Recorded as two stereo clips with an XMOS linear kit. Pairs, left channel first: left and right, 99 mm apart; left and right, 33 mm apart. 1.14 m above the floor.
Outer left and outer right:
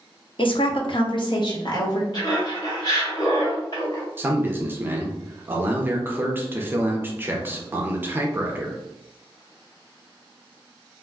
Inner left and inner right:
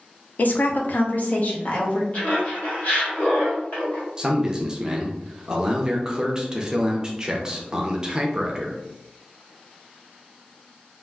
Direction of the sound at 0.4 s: 55° left (ahead or behind).